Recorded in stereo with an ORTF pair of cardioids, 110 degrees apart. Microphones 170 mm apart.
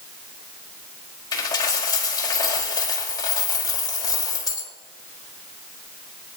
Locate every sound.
1.3 s a dropped coin: 25° left, 4 m